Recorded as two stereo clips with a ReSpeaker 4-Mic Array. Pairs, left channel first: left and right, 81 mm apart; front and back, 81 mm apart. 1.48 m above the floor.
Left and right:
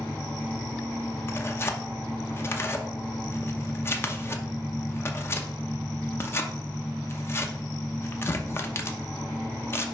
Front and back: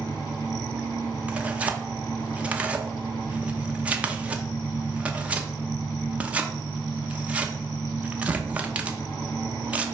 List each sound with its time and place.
0.0 s an engine running: 20° left, 3.5 m
1.3 s tearing paper: 115° left, 0.7 m